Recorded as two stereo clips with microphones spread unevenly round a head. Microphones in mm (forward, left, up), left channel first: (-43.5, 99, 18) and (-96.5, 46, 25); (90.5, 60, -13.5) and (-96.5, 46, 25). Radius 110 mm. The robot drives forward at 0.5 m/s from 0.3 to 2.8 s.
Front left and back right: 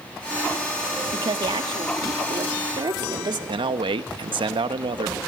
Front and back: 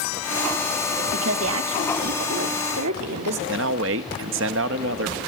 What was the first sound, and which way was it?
A woman speaking, 135° right.